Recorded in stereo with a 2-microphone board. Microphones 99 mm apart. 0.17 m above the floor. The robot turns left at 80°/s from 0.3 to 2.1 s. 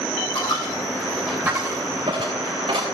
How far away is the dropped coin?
About 3 m.